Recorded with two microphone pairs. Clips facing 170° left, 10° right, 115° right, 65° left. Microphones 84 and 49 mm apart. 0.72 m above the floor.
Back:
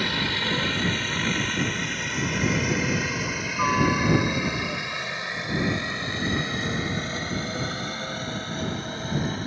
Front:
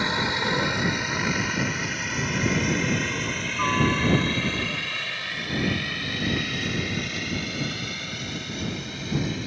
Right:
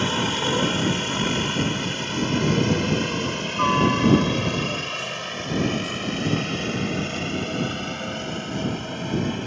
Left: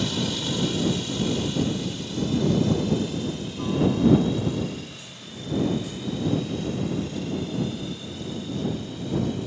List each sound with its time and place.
0.0 s a helicopter: 75° right; by 9.5 s 140° right